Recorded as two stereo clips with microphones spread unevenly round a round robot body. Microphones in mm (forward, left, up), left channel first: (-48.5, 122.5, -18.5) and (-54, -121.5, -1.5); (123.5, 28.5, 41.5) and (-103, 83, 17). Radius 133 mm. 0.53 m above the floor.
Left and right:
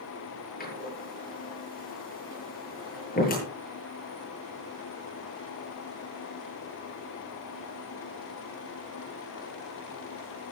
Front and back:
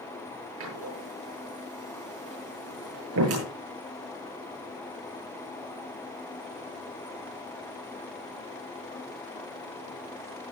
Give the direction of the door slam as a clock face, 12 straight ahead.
7 o'clock.